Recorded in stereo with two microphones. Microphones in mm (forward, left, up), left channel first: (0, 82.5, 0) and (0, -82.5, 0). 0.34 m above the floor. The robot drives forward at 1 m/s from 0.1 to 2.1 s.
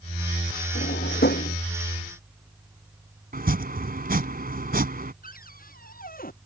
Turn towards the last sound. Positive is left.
turn(degrees=60)  # may be behind; listen again after turning